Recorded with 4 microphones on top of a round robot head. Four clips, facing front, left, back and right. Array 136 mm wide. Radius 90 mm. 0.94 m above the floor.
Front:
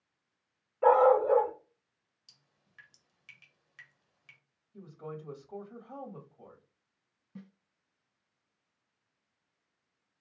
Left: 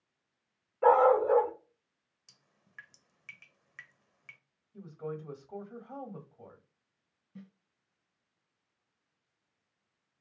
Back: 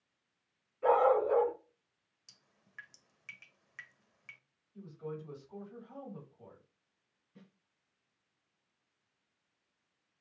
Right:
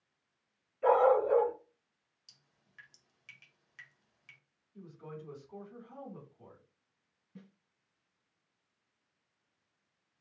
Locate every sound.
0.8 s a dog barking: 50° left, 2.5 m
2.3 s dripping: 125° left, 1.3 m
4.7 s a woman speaking: 50° left, 2.5 m
7.3 s a snare drum: 5° left, 2.0 m